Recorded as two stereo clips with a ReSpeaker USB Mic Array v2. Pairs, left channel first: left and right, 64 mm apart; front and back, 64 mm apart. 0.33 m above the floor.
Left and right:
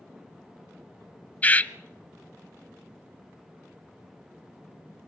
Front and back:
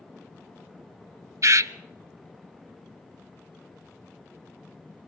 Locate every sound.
1.4 s a bird: 155° left, 0.6 m